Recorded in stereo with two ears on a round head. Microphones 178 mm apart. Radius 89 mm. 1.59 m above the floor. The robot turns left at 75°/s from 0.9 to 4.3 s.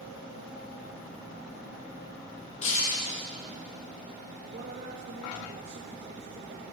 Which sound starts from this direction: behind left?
Breaking glass, at 2.6 s.